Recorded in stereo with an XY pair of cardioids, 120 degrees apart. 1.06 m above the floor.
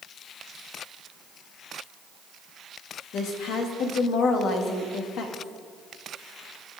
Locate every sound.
3.1 s a woman speaking: 65° left, 1.7 m